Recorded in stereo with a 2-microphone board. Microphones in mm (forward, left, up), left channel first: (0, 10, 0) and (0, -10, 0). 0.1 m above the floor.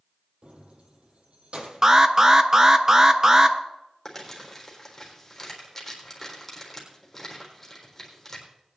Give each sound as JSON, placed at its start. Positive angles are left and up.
{"t": 0.4, "sound": "keys jangling", "side_deg": -65, "distance_m": 2.5}
{"t": 1.8, "sound": "an alarm", "side_deg": -25, "distance_m": 0.9}
{"t": 4.0, "sound": "crumpling", "side_deg": 20, "distance_m": 4.0}